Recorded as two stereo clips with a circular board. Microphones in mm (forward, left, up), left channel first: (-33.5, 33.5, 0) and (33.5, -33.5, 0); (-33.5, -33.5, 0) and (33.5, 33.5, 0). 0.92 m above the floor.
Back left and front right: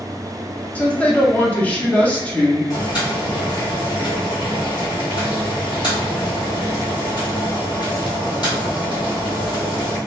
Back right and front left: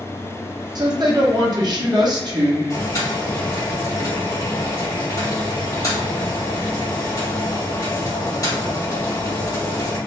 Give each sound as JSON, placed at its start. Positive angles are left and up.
{"t": 0.8, "sound": "a woman speaking", "azimuth_deg": 65, "distance_m": 0.8}
{"t": 2.7, "sound": "boiling", "azimuth_deg": 175, "distance_m": 1.5}